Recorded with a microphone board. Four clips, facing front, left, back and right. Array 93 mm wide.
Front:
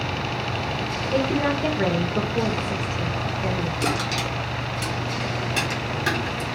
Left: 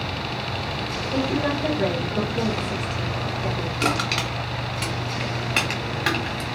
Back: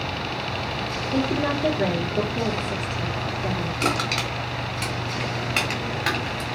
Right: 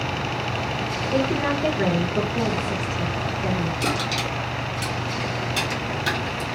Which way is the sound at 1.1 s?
25° right.